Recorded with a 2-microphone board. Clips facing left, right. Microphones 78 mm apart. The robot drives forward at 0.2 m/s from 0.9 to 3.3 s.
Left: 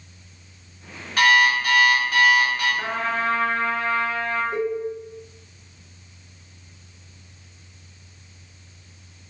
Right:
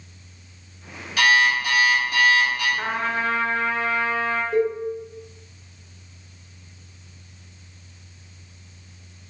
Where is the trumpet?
20° right (ahead or behind), 0.5 m.